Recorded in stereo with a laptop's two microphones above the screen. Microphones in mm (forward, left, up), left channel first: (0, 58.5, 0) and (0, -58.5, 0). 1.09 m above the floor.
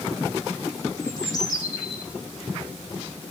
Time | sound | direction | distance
1.0 | a bird | 35° left (ahead or behind) | 6 m